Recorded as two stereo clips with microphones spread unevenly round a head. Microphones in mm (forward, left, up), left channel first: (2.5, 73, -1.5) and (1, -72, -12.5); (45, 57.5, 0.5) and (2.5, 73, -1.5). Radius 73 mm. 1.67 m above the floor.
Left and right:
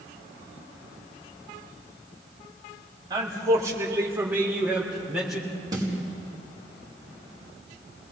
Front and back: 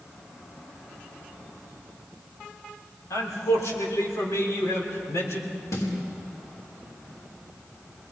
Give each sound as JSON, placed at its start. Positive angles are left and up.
{"t": 3.1, "sound": "a man speaking", "azimuth_deg": -25, "distance_m": 4.5}
{"t": 5.7, "sound": "a snare drum", "azimuth_deg": -25, "distance_m": 4.5}